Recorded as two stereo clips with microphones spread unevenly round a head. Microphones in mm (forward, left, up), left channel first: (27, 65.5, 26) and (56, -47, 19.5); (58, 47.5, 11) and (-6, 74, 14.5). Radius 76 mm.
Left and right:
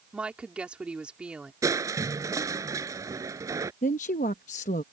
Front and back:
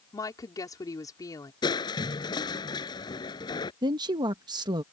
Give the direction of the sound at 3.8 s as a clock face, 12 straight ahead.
7 o'clock.